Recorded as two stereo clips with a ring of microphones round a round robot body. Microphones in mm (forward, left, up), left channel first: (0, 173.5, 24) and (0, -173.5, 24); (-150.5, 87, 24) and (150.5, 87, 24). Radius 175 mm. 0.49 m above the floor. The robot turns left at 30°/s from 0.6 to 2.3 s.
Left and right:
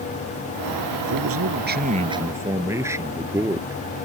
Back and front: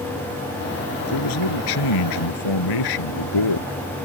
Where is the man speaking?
135° right; by 3.7 s 170° right.